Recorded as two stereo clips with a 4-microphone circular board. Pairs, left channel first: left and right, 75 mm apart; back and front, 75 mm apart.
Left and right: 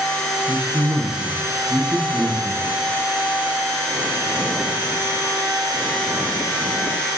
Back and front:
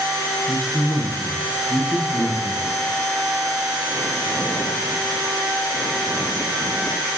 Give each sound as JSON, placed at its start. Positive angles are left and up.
{"t": 0.5, "sound": "a man speaking", "azimuth_deg": -155, "distance_m": 2.0}